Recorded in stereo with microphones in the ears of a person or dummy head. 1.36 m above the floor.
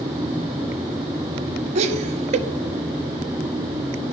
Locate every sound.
1.8 s laughter: 35° right (ahead or behind), 1.1 m